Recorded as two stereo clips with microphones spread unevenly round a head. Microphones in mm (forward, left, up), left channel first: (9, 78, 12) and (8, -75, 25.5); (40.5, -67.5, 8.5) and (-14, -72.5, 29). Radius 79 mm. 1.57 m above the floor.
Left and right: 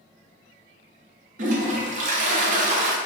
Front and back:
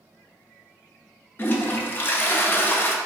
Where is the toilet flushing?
50° right, 0.8 m.